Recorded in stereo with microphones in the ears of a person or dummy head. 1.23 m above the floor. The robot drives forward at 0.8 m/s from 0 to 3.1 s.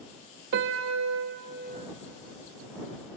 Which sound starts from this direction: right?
A piano, at 0.5 s.